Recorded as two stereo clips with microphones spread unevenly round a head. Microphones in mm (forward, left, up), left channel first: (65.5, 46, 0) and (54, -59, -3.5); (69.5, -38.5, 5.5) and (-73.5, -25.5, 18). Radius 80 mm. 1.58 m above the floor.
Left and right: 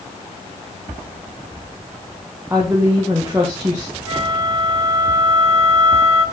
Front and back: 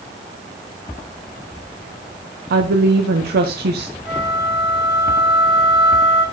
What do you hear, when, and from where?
2.5 s a woman speaking: 175° right, 1.0 m
4.0 s a flute: 90° left, 4 m